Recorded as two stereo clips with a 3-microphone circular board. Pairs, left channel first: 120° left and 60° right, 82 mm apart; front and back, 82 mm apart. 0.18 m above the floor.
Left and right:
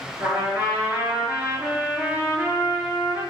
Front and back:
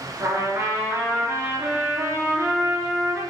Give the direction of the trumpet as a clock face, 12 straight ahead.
4 o'clock.